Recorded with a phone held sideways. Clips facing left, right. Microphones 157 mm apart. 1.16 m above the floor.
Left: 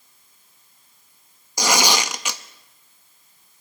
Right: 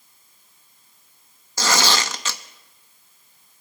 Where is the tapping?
I don't hear tapping.